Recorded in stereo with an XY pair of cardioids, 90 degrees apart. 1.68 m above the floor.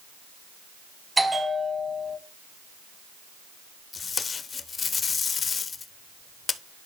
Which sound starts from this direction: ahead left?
Tape being pulled, at 3.9 s.